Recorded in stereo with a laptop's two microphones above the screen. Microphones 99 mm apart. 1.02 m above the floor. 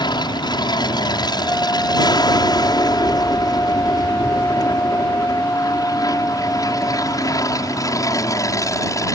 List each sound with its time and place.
0.0 s an aircraft: 50° left (ahead or behind); by 9.2 s 35° left (ahead or behind)
1.4 s a flute: 20° left (ahead or behind)